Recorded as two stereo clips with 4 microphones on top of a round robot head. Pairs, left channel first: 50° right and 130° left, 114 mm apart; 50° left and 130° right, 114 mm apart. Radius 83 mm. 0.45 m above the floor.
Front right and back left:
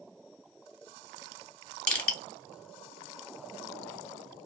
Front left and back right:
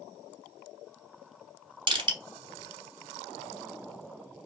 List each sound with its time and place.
1.9 s crushing: 120° right, 1.2 m